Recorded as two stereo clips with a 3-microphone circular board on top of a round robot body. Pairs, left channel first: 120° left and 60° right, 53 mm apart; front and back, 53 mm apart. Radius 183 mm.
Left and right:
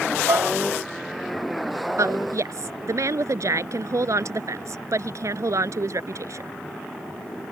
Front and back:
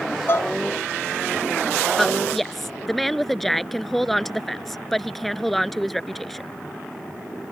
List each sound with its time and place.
0.3 s dishes clattering: 45° right
2.0 s a woman speaking: 85° right